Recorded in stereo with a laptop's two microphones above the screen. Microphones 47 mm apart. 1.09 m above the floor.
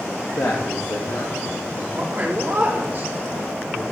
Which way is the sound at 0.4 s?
65° left (ahead or behind).